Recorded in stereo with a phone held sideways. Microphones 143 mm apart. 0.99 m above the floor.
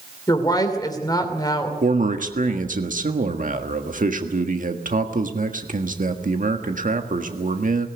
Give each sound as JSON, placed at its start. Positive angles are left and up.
{"t": 0.3, "sound": "a woman speaking", "side_deg": 25, "distance_m": 2.5}
{"t": 1.8, "sound": "a man speaking", "side_deg": -65, "distance_m": 1.6}